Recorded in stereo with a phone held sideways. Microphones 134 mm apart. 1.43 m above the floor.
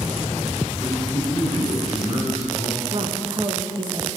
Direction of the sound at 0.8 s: 30° right (ahead or behind).